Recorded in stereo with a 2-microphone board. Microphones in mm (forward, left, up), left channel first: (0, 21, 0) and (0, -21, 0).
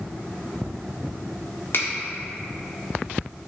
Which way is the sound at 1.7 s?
55° left (ahead or behind).